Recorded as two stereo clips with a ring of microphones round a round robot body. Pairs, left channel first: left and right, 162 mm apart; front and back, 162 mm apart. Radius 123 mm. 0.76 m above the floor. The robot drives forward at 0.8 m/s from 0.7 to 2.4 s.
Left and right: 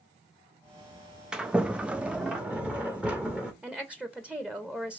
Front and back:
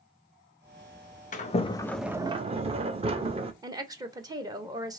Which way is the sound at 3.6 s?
165° right.